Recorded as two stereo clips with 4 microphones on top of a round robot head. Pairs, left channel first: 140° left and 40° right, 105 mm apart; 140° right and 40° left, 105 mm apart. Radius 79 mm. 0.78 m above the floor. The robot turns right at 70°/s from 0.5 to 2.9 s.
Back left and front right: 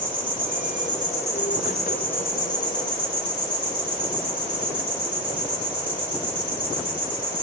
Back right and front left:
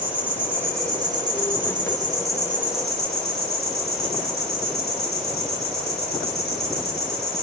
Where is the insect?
35° right, 2.5 m; by 7.4 s 135° left, 2.5 m.